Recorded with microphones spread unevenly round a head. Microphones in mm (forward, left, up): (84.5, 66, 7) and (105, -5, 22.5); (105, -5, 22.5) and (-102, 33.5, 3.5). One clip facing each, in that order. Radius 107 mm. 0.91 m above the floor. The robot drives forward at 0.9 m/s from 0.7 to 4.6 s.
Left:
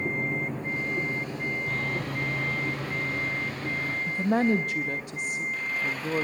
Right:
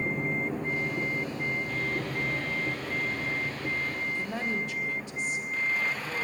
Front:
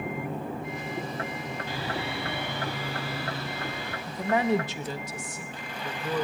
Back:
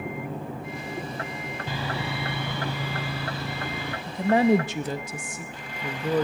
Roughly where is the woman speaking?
Left.